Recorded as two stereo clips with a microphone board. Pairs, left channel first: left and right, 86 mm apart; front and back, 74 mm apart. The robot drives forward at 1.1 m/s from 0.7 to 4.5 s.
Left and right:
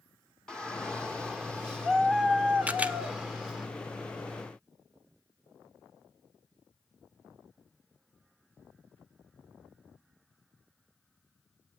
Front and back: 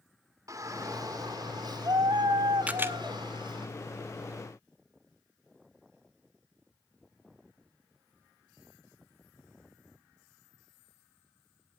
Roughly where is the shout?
Behind.